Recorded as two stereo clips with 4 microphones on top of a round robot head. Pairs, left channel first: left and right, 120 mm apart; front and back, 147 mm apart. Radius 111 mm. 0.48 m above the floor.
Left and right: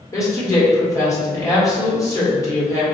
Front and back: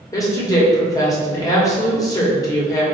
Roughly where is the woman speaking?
Ahead left.